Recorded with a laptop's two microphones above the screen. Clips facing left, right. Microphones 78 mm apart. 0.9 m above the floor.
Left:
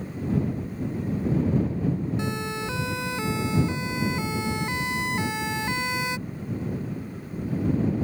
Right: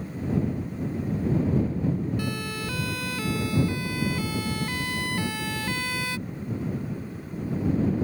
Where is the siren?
20° left (ahead or behind).